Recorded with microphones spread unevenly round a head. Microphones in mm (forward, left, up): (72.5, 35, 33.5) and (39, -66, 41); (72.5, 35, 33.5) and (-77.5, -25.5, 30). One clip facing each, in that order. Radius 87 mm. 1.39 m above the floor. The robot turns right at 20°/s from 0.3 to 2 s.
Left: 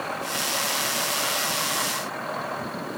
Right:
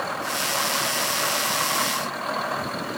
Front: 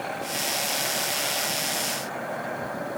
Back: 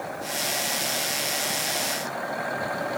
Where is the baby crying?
No baby crying in this recording.